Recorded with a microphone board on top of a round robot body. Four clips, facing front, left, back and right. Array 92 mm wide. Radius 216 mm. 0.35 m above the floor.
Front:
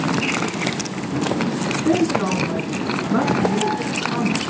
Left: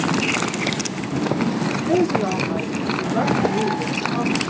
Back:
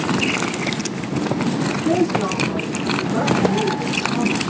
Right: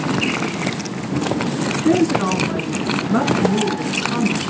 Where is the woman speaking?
70° right, 9.5 m; by 4.4 s 50° right, 7 m.